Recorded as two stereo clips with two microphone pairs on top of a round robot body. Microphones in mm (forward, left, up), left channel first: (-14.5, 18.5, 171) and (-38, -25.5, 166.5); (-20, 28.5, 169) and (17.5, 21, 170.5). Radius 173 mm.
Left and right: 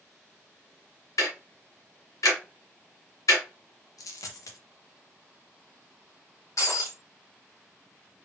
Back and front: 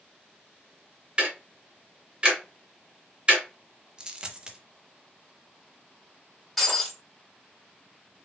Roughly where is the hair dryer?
I don't hear a hair dryer.